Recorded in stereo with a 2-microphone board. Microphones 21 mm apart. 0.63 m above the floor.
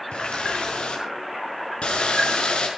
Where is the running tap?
75° left (ahead or behind), 6 m.